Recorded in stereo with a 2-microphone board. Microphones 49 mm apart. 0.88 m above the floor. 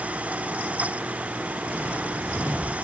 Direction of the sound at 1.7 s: 10° right (ahead or behind).